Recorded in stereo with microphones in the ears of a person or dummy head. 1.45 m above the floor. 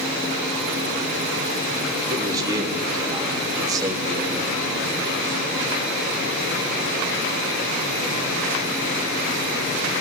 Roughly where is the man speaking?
Right.